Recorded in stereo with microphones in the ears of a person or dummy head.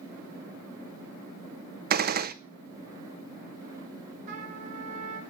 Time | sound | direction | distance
1.9 | a gunshot | 50° right (ahead or behind) | 0.7 m
4.3 | a trumpet | 35° right (ahead or behind) | 3 m